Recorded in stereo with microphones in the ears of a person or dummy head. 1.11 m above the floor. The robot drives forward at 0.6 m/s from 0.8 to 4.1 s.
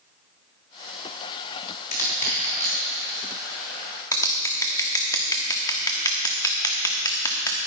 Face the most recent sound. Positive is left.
turn(degrees=20)  # may be behind; listen again after turning